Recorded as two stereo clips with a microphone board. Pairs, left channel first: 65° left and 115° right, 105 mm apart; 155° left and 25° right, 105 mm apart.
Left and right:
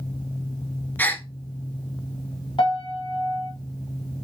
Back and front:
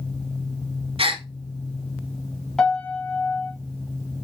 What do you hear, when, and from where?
1.0 s a gasp: 5° right, 0.6 m
2.6 s a piano: 75° left, 1.5 m